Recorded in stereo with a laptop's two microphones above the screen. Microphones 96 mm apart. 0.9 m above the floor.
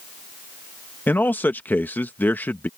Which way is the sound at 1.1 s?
20° left (ahead or behind).